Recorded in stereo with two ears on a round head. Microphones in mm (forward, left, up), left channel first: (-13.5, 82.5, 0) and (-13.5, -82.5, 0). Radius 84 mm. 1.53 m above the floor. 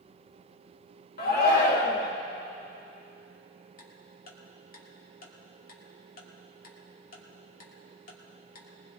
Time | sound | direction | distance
1.2 | a shout | 60° left (ahead or behind) | 1.9 m
3.8 | ticking | 55° left (ahead or behind) | 2 m